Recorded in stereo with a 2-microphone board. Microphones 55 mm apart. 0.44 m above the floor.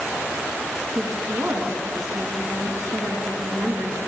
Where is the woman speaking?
60° right (ahead or behind), 5 m.